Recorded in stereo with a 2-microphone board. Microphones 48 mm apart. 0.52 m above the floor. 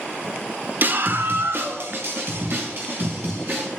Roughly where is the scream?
Right.